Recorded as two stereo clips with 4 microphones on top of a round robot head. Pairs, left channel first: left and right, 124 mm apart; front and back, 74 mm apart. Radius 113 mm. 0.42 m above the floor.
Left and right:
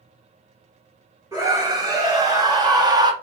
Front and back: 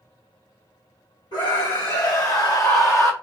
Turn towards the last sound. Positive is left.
turn(degrees=-45)